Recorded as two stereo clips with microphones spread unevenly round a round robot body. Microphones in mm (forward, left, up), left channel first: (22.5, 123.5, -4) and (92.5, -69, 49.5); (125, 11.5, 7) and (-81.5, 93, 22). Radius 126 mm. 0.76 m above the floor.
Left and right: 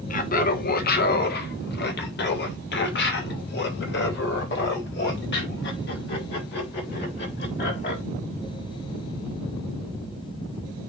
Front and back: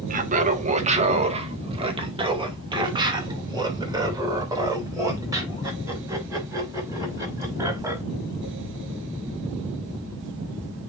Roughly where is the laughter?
Behind left.